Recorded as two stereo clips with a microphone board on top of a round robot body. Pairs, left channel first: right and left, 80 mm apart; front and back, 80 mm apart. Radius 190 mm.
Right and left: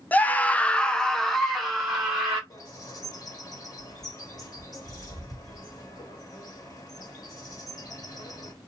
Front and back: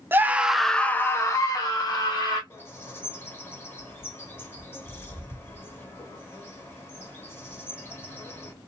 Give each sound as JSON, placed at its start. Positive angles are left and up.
{"t": 0.1, "sound": "a scream", "azimuth_deg": -145, "distance_m": 0.8}
{"t": 2.5, "sound": "a bird", "azimuth_deg": -60, "distance_m": 1.8}